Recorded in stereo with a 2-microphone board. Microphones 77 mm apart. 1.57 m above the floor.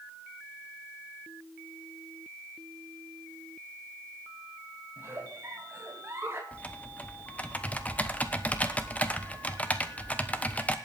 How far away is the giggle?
About 2.5 m.